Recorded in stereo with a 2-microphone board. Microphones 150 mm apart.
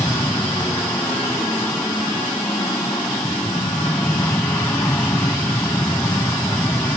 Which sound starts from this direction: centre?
An aircraft, at 0.0 s.